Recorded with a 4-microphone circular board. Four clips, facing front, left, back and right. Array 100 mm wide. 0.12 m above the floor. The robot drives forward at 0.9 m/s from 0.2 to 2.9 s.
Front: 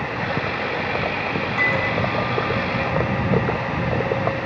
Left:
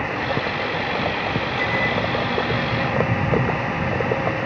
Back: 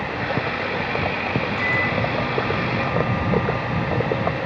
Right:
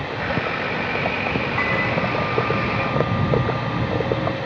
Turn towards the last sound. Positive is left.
turn(degrees=-85)